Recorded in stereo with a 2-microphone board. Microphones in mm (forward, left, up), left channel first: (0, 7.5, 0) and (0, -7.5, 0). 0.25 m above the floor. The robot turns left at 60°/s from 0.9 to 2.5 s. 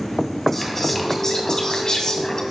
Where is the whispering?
150° left, 2 m; by 2.4 s 60° left, 2 m.